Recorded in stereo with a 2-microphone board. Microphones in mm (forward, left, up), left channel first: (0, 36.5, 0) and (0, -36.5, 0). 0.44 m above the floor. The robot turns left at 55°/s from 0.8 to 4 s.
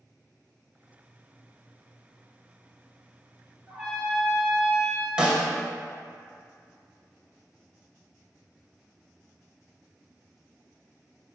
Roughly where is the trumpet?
Centre.